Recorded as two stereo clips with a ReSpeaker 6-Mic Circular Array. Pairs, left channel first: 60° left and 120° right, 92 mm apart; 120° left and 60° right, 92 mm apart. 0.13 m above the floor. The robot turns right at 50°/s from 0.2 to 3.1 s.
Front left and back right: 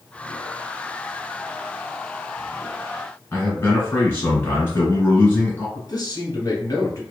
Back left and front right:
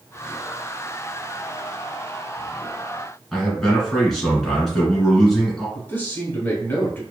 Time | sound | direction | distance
3.3 | a man speaking | 35° left | 1.7 m
5.8 | a man speaking | 65° left | 1.5 m